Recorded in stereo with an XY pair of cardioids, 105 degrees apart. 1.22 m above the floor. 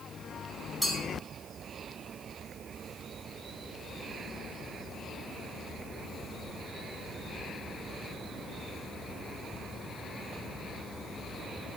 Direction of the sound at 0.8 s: 5° right.